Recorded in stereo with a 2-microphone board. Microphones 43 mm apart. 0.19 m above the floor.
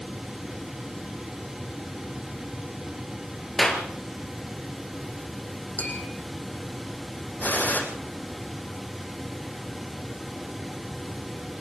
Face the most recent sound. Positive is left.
turn(degrees=45)  # may be behind; listen again after turning